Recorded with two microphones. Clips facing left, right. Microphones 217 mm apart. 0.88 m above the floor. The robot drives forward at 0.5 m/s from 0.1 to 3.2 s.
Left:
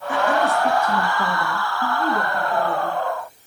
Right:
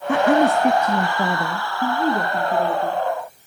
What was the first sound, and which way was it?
A woman speaking, 65° right (ahead or behind).